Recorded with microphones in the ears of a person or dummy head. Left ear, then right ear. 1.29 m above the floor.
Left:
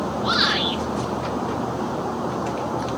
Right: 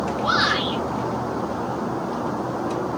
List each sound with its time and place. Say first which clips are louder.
0.2 s a shout: even; 25° right (ahead or behind), 4.5 m